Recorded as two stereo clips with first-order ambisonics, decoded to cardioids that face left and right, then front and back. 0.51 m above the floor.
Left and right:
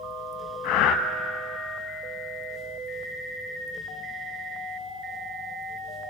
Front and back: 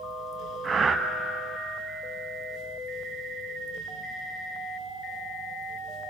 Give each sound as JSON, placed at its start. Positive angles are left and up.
{"t": 0.6, "sound": "breathing", "azimuth_deg": 110, "distance_m": 0.7}